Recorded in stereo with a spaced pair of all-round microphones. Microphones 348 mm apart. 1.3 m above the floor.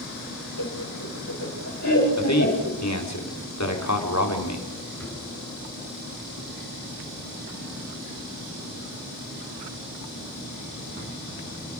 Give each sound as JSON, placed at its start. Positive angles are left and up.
{"t": 0.6, "sound": "laughter", "side_deg": 70, "distance_m": 6.0}
{"t": 2.2, "sound": "a man speaking", "side_deg": 50, "distance_m": 3.5}
{"t": 5.0, "sound": "a drawer", "side_deg": 5, "distance_m": 7.0}